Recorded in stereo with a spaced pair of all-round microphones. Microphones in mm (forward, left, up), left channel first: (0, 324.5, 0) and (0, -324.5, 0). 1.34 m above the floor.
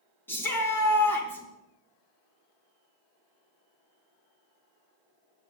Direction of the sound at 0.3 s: 5° left (ahead or behind).